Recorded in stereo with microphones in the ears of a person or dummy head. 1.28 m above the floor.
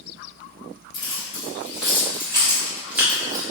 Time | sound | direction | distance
0.9 | keys jangling | 35° left (ahead or behind) | 1.6 m